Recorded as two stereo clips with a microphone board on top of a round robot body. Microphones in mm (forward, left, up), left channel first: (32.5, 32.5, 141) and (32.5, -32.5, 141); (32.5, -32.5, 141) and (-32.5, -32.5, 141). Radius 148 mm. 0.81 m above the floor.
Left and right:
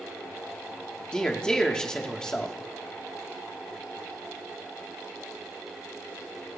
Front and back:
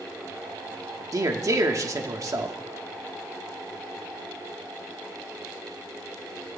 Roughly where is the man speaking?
Behind.